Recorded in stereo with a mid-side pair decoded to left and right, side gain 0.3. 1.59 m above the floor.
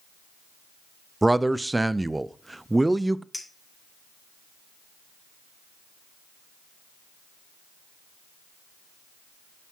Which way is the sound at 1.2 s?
20° right.